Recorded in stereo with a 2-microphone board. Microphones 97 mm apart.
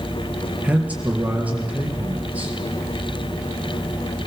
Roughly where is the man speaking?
Centre.